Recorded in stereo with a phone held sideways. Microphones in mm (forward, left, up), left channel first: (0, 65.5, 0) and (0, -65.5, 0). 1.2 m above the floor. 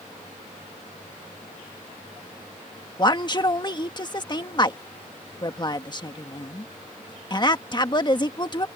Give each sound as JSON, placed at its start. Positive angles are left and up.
{"t": 3.0, "sound": "a woman speaking", "side_deg": 30}